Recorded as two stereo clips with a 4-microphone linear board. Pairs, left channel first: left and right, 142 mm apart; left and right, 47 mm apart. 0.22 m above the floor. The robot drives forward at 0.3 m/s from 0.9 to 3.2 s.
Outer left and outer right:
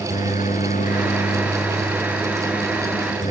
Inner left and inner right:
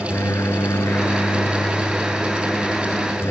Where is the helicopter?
65° left (ahead or behind).